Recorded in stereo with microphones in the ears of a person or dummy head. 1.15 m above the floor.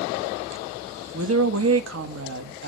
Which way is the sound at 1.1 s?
85° right.